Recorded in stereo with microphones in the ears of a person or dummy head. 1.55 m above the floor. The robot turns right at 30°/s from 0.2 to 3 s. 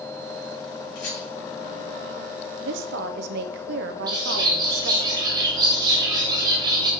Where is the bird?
25° right (ahead or behind), 1.1 m.